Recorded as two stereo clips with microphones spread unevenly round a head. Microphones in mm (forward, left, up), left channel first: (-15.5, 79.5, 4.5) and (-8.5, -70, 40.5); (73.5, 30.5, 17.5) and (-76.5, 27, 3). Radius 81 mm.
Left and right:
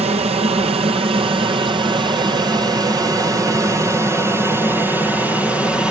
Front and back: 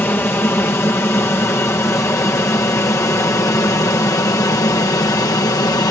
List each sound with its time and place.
0.0 s an aircraft: 70° right; by 5.9 s 25° left